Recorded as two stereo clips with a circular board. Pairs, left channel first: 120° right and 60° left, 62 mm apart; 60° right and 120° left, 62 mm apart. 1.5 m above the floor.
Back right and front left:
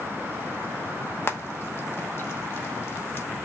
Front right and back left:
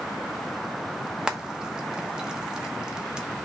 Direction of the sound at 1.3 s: 165° right.